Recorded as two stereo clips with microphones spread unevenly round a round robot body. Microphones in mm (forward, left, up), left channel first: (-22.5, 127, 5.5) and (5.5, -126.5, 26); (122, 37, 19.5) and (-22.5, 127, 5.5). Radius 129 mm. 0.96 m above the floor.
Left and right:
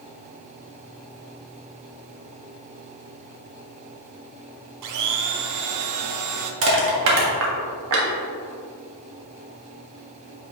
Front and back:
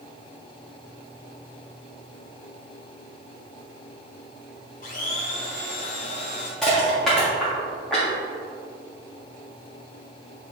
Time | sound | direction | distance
4.8 | a blender | 85° right | 0.7 m
6.6 | crushing | 120° right | 1.6 m